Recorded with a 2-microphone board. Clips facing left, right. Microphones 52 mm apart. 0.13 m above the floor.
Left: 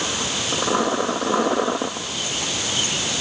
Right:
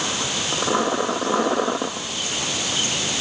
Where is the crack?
No crack in this recording.